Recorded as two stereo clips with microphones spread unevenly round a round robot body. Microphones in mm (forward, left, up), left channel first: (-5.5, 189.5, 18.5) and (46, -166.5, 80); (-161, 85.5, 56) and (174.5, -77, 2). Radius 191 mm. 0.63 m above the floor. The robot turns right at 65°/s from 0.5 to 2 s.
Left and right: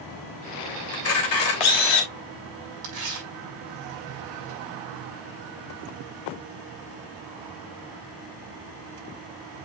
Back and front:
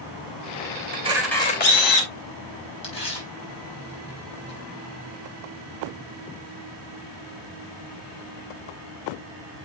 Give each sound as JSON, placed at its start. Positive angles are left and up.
{"t": 0.9, "sound": "a camera shutter", "azimuth_deg": 40, "distance_m": 3.0}
{"t": 2.8, "sound": "tearing paper", "azimuth_deg": -130, "distance_m": 5.5}